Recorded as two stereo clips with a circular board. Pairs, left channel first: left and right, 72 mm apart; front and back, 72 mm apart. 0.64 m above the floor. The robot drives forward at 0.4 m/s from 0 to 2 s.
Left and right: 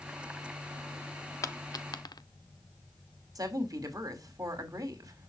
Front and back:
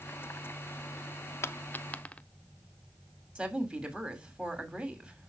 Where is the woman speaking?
110° right, 2.5 m.